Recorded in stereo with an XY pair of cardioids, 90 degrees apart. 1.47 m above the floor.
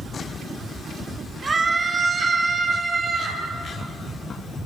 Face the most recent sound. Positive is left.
turn(degrees=-45)